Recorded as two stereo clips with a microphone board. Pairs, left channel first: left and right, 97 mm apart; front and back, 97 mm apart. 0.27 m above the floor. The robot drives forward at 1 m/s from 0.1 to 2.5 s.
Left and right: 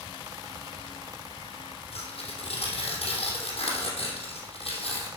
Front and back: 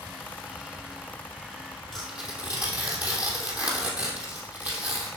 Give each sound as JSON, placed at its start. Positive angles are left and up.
{"t": 1.9, "sound": "tearing paper", "azimuth_deg": 95, "distance_m": 3.0}